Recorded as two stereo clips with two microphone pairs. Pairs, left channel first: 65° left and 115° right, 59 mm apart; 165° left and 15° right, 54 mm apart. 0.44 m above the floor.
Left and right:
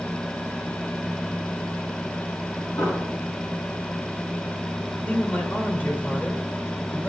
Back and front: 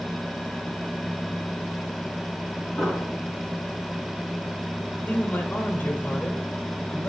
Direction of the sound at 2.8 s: 85° left.